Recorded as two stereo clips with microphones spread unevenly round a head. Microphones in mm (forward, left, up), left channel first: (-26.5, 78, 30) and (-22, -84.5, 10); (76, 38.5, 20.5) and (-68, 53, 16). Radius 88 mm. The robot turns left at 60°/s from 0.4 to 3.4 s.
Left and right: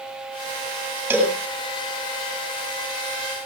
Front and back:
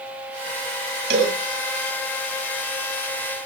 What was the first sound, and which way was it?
A cowbell, 165° right.